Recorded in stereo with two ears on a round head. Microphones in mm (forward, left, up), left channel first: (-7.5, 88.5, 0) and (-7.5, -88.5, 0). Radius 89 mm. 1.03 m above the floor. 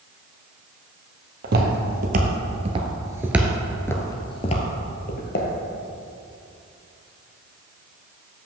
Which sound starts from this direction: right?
Footsteps, at 1.4 s.